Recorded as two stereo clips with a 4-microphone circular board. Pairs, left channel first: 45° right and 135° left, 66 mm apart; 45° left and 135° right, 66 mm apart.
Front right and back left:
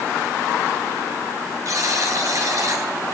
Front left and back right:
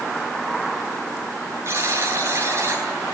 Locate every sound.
1.6 s a buzzer: 175° left, 8.5 m